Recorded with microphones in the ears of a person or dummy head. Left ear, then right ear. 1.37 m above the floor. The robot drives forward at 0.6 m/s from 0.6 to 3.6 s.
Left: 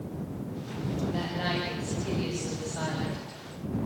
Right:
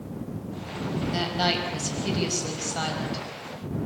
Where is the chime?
No chime in this recording.